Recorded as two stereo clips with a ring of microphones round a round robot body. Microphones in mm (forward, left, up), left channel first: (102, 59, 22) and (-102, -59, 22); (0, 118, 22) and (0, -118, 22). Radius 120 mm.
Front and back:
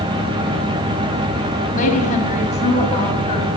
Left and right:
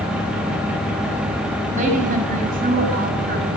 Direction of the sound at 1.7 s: 30° right.